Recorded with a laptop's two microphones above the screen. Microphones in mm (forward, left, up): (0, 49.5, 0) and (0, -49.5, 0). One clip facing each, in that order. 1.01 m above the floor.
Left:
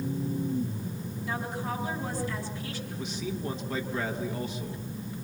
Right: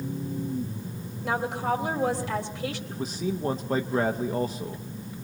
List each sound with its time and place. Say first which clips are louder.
1.2 s a woman speaking: right 7 dB; 80° right, 3.5 m
2.9 s a man speaking: right 3 dB; 35° right (ahead or behind), 1.1 m